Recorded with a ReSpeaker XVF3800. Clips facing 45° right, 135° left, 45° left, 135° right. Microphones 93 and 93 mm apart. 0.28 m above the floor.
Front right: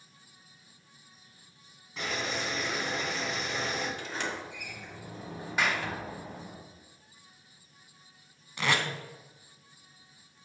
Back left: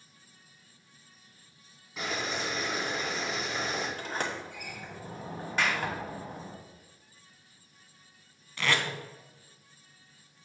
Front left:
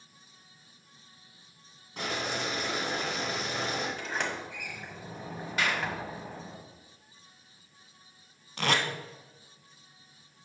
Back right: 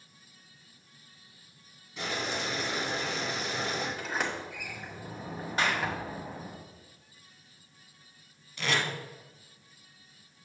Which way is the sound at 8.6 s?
25° left.